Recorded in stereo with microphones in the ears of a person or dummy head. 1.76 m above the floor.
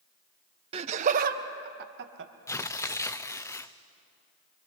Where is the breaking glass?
I don't hear breaking glass.